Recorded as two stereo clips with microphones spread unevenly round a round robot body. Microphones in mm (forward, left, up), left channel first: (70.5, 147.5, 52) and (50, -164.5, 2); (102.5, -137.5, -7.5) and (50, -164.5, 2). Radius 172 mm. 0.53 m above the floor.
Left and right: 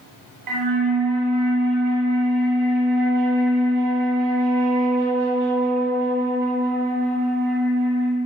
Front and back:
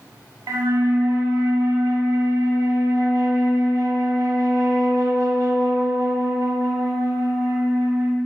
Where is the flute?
135° right, 0.8 m.